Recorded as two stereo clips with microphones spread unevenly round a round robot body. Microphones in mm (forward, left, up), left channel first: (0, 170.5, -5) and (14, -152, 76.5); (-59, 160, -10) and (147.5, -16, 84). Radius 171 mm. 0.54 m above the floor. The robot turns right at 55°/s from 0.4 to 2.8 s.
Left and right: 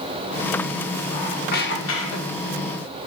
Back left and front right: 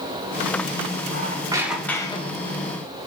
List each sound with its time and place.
1.1 s a squeak: 30° left, 1.0 m; by 2.6 s 110° left, 1.0 m